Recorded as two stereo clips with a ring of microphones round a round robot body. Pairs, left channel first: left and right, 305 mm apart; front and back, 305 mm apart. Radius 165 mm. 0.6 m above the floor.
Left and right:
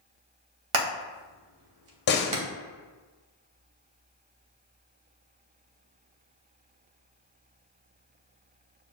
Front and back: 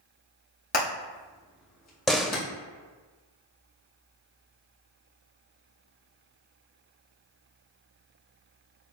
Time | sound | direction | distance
0.7 | hammering | 65° right | 1.4 m
2.1 | a door slam | 90° left | 0.6 m